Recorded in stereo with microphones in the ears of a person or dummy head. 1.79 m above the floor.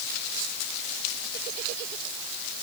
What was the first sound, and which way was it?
Only background noise.